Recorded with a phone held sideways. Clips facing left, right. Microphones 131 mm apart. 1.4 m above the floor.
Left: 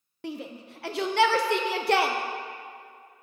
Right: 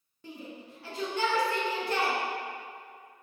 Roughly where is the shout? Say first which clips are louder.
Left 7 dB; left.